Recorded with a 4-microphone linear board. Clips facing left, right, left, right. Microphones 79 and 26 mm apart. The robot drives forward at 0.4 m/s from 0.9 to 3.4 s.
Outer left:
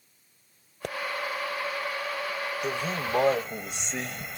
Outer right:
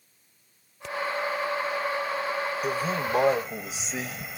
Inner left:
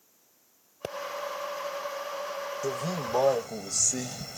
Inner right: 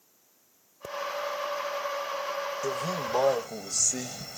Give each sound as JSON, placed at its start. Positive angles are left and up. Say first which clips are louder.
{"t": 0.8, "sound": "a pop", "louder": "outer left 1 dB, inner left 2 dB", "side_deg": 60}
{"t": 2.6, "sound": "a man speaking", "louder": "outer right 2 dB, inner left 1 dB", "side_deg": 0}